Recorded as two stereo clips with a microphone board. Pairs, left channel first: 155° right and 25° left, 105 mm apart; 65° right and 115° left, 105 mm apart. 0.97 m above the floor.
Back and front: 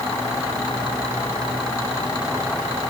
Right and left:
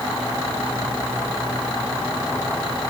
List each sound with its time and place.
Only background noise.